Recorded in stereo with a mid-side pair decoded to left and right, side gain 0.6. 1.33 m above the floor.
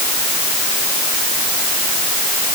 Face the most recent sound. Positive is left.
No sound to turn to.